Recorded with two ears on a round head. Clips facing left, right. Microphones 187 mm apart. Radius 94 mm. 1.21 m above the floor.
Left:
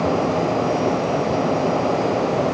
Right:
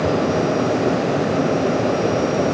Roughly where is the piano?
I don't hear a piano.